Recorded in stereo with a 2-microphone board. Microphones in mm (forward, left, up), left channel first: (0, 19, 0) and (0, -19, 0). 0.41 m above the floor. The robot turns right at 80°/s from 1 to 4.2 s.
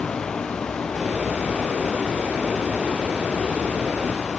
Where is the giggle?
No giggle in this recording.